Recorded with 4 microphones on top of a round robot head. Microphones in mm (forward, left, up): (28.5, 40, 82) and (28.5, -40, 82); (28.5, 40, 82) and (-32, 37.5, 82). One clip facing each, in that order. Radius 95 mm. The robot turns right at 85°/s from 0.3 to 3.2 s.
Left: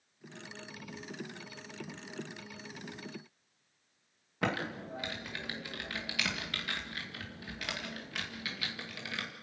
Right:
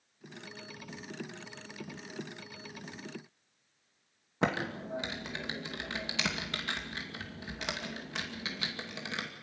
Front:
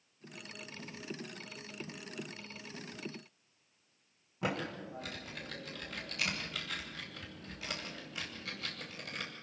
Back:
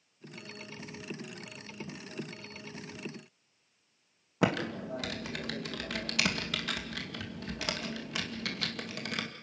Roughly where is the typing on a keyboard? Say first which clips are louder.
Right 2 dB, back 7 dB; behind.